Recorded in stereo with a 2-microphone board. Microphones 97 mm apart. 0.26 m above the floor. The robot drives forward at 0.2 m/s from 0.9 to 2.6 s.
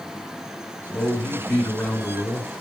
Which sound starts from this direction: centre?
A man speaking, at 0.9 s.